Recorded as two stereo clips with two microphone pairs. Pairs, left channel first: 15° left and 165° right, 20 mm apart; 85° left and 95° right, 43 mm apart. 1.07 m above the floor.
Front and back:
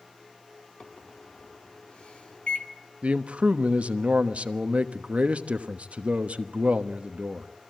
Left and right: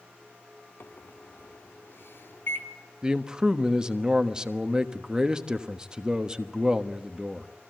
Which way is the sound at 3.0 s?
170° right.